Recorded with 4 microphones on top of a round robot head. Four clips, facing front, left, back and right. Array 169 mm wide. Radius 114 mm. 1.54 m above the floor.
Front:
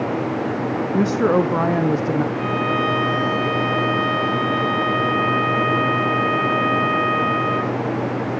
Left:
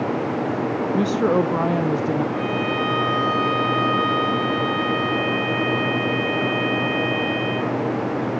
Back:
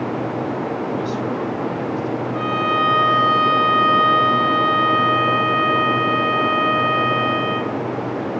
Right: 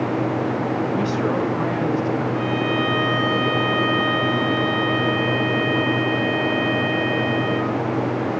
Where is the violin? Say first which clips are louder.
Right 1 dB, back 2 dB; straight behind, 2.5 m.